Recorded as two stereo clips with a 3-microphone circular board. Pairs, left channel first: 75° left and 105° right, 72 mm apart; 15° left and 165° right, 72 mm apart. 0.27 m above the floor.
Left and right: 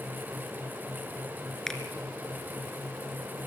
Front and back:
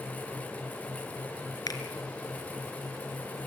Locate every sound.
1.7 s a finger snap: 10° right, 2.5 m